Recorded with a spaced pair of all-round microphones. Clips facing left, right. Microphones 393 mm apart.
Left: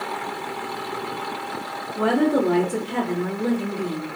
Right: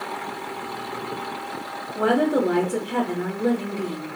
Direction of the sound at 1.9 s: 5° left (ahead or behind).